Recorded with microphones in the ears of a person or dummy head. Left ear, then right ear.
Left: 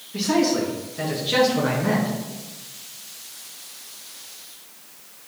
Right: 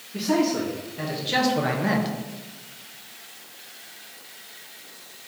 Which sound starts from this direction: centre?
A man speaking, at 0.1 s.